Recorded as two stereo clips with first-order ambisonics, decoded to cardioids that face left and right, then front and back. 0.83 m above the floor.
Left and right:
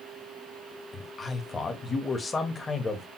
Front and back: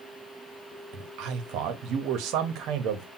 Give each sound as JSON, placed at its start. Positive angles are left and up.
{"t": 0.9, "sound": "a man speaking", "azimuth_deg": 160, "distance_m": 0.7}